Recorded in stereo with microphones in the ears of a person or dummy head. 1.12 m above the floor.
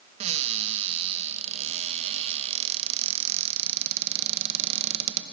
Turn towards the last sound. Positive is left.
turn(degrees=-40)  # may be behind; listen again after turning